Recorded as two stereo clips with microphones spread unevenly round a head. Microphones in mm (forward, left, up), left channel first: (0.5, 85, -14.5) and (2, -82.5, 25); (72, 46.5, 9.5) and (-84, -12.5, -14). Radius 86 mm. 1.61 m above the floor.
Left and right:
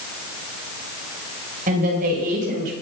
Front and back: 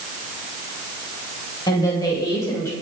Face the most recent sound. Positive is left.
turn(degrees=-50)